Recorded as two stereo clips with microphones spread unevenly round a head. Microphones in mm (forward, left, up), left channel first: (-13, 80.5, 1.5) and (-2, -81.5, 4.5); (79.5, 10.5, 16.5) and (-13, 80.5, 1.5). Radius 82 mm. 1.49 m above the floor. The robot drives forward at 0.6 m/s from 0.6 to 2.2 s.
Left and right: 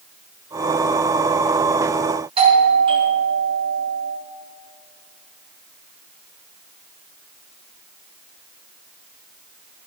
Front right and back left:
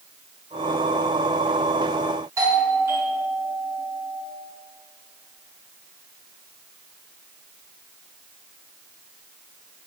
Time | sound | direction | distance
2.4 | a doorbell | 145° right | 2.5 m